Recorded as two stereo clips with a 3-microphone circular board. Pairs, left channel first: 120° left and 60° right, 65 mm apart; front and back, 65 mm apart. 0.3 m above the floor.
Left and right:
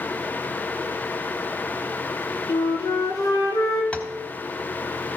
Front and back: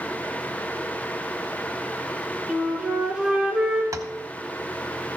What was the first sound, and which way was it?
A flute, 105° left.